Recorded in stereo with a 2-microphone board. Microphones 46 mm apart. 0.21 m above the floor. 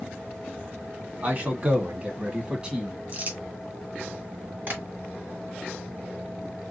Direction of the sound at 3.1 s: 40° right (ahead or behind).